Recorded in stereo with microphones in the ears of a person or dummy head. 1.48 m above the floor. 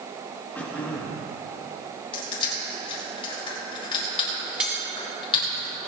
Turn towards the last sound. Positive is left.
turn(degrees=-5)  # may be behind; listen again after turning